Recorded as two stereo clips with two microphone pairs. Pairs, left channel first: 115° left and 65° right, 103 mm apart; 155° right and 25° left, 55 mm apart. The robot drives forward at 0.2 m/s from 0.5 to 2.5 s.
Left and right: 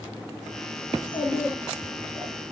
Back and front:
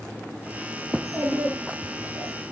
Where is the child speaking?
165° right, 4 m.